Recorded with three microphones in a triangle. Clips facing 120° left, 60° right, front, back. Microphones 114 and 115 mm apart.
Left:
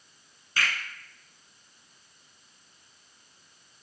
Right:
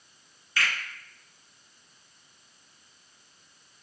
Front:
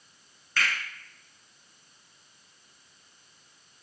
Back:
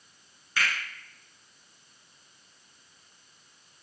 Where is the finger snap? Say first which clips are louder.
Even, even; 100° left, 1.4 m.